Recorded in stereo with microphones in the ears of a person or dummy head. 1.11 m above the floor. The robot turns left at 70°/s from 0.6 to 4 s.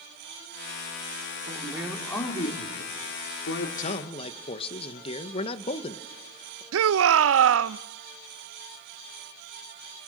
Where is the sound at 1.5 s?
145° right, 2.5 m; by 3.7 s 60° left, 2.5 m.